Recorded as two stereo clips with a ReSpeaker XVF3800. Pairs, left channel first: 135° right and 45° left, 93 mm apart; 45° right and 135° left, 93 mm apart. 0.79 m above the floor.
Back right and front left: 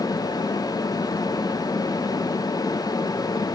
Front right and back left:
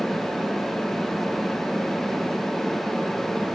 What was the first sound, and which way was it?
Only background noise.